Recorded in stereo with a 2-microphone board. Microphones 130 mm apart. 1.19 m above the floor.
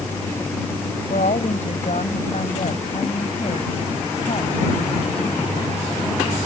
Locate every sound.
1.1 s a woman speaking: 75° left (ahead or behind); by 5.8 s 40° left (ahead or behind)